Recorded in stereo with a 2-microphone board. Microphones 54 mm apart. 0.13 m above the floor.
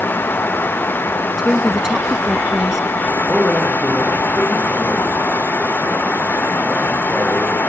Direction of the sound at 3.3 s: 5° right (ahead or behind).